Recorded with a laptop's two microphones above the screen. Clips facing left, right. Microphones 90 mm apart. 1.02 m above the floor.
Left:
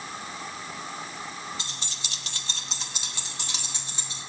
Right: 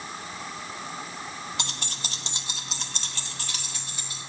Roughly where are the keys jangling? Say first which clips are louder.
Right 4 dB; right.